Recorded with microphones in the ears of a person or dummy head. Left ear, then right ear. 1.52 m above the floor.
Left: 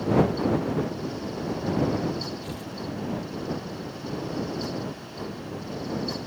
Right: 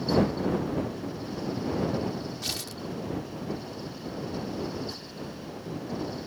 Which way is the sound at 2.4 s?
60° right (ahead or behind).